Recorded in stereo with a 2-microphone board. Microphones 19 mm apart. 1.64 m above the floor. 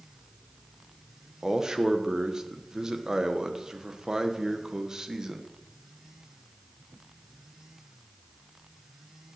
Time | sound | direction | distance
1.4 | a man speaking | 25° right (ahead or behind) | 1.1 m